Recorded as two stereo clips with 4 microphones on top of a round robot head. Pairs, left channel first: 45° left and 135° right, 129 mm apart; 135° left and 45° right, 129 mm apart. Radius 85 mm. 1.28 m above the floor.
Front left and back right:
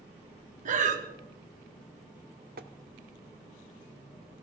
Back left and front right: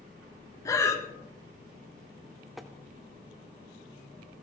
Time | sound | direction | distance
0.7 | breathing | 160° right | 1.7 m
2.6 | tapping | 135° right | 0.8 m